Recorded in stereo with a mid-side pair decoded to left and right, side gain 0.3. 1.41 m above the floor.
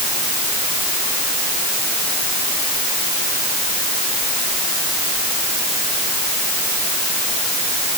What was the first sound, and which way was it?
Only background noise.